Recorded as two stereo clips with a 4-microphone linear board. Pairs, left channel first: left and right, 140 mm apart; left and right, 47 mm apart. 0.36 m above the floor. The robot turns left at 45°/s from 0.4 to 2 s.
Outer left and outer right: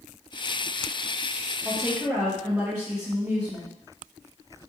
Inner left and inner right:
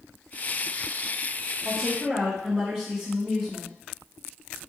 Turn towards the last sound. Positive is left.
turn(degrees=-25)  # may be behind; listen again after turning